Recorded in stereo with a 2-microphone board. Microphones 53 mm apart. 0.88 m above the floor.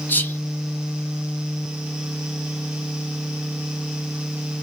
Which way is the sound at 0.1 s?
35° left (ahead or behind).